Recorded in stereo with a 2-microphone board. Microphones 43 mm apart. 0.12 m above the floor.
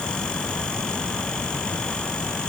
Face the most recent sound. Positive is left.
No sound to turn to.